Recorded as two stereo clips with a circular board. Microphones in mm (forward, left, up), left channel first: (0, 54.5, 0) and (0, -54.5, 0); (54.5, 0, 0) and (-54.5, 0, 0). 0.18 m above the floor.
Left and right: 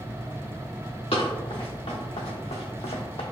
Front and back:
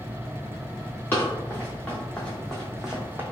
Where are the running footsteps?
65° left, 1.8 m; by 3.2 s 110° left, 0.6 m.